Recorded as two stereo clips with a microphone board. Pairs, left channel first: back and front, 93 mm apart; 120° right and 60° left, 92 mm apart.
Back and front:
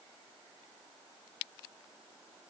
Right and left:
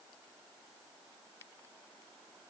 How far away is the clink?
No clink in this recording.